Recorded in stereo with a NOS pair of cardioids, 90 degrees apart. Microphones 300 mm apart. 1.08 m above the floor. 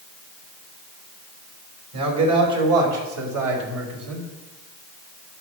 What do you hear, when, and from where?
1.9 s a man speaking: 55° right, 4.5 m; by 4.3 s 70° right, 3 m